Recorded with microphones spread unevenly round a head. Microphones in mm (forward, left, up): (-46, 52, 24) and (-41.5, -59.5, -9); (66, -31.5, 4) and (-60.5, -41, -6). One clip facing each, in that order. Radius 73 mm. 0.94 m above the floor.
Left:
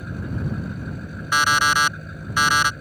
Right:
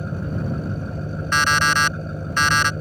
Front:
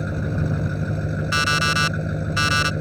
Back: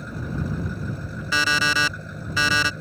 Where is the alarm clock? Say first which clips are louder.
Even, back 2 dB; 175° left.